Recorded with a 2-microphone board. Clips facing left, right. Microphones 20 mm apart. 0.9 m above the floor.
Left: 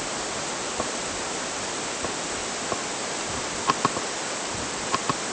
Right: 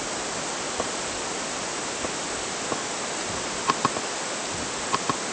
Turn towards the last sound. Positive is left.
No sound to turn to.